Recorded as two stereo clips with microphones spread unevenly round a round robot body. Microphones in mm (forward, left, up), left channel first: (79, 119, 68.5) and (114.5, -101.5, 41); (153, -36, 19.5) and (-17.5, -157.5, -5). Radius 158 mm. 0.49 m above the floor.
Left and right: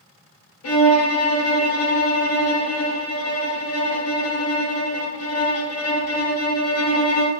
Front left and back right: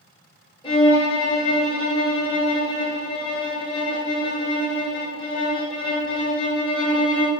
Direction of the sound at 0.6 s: 110° left.